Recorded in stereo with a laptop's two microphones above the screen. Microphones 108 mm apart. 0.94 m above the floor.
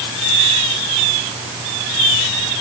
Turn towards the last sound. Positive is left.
No sound to turn to.